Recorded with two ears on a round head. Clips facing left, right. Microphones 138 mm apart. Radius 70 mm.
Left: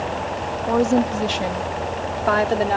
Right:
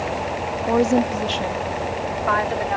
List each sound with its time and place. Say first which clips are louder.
0.7 s a woman speaking: even; 10° right (ahead or behind); by 2.8 s 45° left (ahead or behind)